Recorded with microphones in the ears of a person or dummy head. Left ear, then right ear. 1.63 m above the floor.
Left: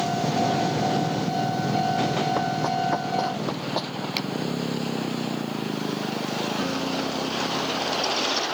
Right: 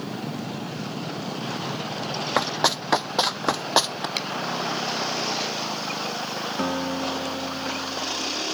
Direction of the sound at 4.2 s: 5° right (ahead or behind).